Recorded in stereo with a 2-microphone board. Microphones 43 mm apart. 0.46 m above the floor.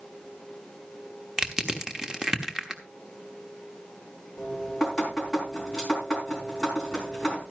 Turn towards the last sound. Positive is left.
turn(degrees=0)  # may be behind; listen again after turning